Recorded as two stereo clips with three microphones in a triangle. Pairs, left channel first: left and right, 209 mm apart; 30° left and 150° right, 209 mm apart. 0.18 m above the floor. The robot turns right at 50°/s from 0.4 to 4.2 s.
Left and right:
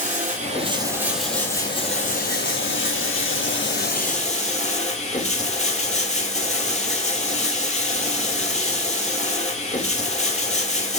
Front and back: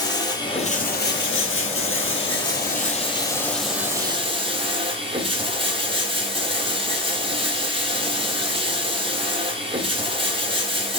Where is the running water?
40° right, 0.8 m; by 11.0 s 150° left, 0.8 m.